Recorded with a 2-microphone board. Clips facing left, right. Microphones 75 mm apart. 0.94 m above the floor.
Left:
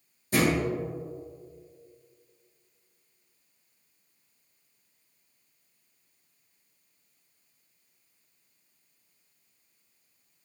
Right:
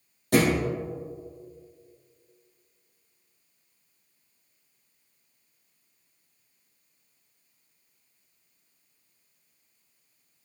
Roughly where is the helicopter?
I don't hear a helicopter.